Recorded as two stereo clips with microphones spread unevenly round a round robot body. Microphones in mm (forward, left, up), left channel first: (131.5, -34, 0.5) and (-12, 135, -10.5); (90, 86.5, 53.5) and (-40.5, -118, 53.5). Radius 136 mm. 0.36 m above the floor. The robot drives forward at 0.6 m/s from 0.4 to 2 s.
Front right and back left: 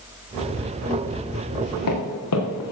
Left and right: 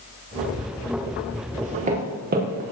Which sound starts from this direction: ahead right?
Footsteps, at 1.6 s.